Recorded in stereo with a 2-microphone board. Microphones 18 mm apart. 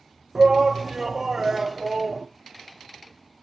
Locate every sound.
0.3 s a shout: 30° right (ahead or behind), 1.0 m